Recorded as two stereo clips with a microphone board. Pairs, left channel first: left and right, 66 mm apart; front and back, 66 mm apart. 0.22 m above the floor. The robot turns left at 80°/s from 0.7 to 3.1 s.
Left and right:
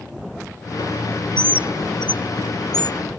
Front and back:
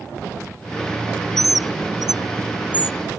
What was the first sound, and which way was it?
A bird, 140° right.